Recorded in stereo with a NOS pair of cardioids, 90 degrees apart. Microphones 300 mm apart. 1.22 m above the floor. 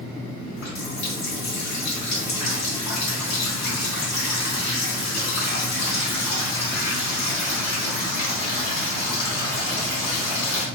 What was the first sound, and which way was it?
A running tap, 65° left.